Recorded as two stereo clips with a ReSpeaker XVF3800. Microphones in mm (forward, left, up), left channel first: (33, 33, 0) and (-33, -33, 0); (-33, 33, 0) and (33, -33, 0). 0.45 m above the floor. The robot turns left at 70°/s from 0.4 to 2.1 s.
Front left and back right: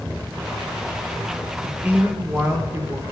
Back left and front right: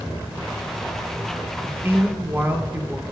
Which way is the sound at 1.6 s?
60° right.